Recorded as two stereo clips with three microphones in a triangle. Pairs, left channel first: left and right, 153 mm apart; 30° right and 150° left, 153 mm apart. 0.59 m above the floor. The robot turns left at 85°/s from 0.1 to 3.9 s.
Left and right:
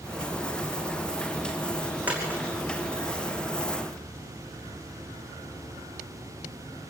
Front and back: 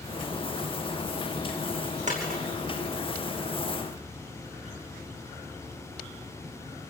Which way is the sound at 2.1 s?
170° right.